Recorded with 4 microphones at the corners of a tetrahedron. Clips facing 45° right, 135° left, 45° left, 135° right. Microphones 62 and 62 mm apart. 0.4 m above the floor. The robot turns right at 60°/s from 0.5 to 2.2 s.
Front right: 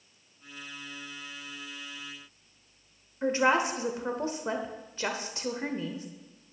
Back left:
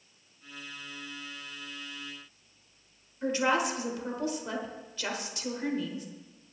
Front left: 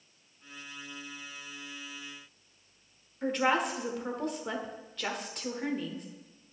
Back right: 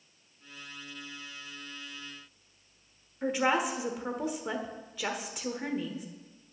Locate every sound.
3.2 s a woman speaking: 60° right, 1.1 m